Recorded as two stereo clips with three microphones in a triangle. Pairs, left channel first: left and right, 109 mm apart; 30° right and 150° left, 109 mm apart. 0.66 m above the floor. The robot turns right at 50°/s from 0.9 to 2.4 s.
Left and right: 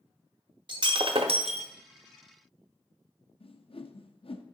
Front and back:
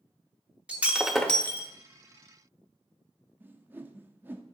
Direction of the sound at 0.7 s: 130° right.